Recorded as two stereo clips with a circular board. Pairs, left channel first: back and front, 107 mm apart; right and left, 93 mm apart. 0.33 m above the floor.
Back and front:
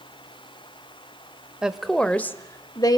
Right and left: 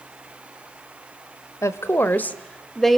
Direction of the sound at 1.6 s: 75° right.